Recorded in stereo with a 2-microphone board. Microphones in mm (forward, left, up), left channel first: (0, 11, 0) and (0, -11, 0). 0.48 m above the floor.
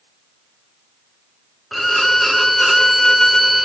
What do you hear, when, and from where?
1.7 s a violin: 5° left (ahead or behind), 0.5 m